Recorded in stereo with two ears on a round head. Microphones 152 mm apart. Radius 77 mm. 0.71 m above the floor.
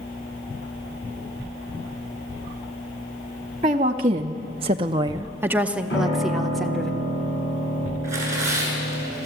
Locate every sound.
3.6 s a woman speaking: 30° right (ahead or behind), 1.0 m; by 6.9 s 5° left (ahead or behind), 1.7 m
5.9 s a piano: 75° left (ahead or behind), 8 m
8.0 s tearing paper: 20° right (ahead or behind), 8 m